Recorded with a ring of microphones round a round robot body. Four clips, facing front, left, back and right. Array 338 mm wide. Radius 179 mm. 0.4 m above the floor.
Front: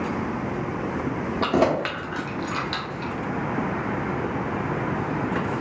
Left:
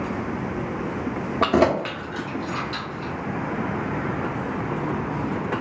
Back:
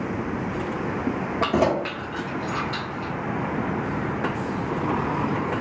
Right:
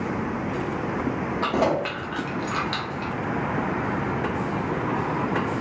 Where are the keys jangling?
105° left, 0.5 m; by 3.1 s 45° right, 1.4 m.